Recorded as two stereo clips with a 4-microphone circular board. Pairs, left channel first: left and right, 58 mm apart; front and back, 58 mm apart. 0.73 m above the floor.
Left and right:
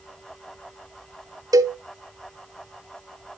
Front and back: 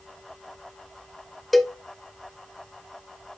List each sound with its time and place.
1.5 s a cowbell: 90° right, 0.7 m